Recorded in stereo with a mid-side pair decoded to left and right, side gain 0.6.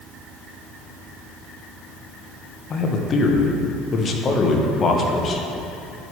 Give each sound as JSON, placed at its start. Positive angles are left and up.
{"t": 2.7, "sound": "a man speaking", "azimuth_deg": 30, "distance_m": 1.0}